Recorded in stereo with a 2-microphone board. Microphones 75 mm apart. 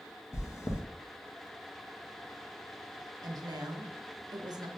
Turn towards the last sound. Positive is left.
turn(degrees=-65)  # may be behind; listen again after turning